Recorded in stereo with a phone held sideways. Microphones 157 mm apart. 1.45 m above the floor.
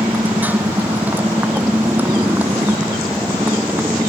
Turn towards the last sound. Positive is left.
turn(degrees=-10)  # may be behind; listen again after turning